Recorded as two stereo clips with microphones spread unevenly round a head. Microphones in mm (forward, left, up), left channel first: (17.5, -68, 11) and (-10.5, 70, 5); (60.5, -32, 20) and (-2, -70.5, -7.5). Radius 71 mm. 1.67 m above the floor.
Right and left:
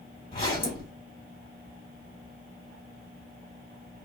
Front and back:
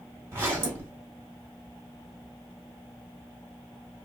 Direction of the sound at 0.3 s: 80° right.